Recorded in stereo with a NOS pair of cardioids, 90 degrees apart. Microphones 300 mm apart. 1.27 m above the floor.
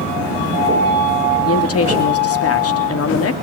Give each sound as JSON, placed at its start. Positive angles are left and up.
{"t": 1.4, "sound": "a woman speaking", "azimuth_deg": 50, "distance_m": 3.5}